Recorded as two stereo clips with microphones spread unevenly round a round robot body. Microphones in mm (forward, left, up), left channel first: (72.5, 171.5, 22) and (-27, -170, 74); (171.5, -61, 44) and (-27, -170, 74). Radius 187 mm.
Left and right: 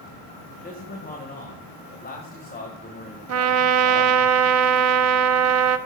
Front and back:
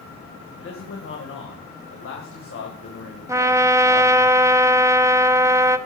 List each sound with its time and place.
0.6 s a man speaking: 10° left, 2.5 m
3.3 s a trumpet: 85° right, 0.5 m